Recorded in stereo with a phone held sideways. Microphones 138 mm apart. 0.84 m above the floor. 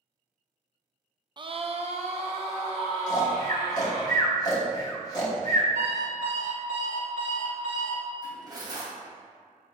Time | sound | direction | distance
1.4 | a scream | 30° right (ahead or behind) | 0.5 m
3.1 | snoring | 30° left (ahead or behind) | 1.4 m
5.8 | an alarm clock | 70° right (ahead or behind) | 2.5 m
8.2 | cutlery clinking | 30° right (ahead or behind) | 2.5 m